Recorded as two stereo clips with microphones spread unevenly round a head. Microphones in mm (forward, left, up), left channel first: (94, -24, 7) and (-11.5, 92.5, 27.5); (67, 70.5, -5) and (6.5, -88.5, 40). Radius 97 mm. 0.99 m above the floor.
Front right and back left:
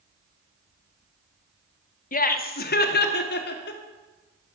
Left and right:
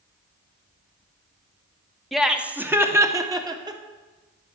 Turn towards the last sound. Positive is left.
turn(degrees=-40)